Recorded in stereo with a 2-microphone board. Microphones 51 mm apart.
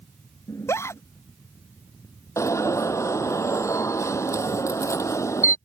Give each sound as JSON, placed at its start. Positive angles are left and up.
{"t": 0.5, "sound": "a scream", "side_deg": 65}
{"t": 2.4, "sound": "an alarm", "side_deg": 80}